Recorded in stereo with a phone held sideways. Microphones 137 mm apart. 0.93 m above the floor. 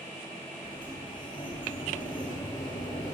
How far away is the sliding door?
About 5 m.